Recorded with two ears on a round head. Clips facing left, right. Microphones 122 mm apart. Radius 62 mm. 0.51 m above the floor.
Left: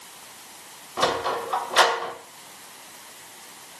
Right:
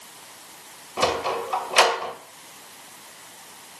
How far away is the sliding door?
About 2.5 m.